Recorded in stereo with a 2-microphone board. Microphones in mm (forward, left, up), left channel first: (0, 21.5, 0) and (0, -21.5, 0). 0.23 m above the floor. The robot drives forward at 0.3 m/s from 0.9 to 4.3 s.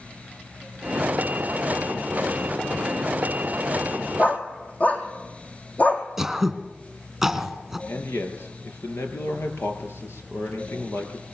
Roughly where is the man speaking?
Left.